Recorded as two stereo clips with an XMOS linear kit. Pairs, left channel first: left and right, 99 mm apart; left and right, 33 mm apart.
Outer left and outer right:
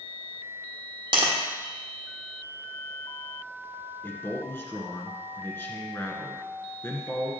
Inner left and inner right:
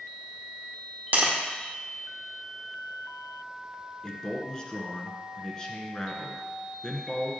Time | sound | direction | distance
1.1 | tapping | 55° right (ahead or behind) | 1.6 m
4.0 | a man speaking | 25° left (ahead or behind) | 1.4 m